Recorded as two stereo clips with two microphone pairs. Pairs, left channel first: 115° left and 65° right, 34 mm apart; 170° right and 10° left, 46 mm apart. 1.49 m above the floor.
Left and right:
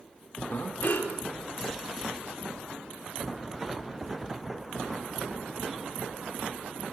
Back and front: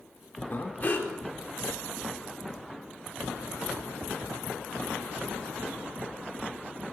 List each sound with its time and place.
0.5 s breathing: 140° left, 5 m